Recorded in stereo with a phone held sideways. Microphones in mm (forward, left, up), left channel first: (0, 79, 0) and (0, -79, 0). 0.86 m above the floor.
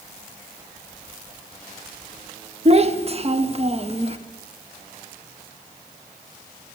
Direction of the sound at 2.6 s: 40° right (ahead or behind).